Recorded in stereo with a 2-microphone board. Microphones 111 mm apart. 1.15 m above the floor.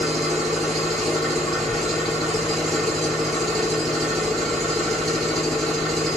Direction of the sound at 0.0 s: 5° left (ahead or behind).